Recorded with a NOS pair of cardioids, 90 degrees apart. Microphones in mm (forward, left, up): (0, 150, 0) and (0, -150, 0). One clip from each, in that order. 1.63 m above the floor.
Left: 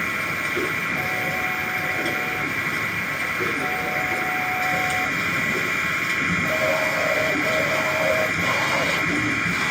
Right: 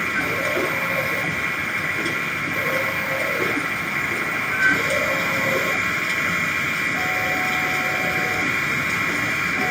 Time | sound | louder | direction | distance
0.0 | a machine running | right 2 dB | straight ahead | ?